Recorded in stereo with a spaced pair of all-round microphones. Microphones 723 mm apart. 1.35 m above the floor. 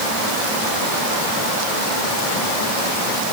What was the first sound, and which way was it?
Only background noise.